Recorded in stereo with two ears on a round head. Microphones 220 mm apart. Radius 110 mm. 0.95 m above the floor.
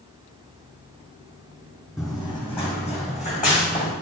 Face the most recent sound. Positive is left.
turn(degrees=35)  # may be behind; listen again after turning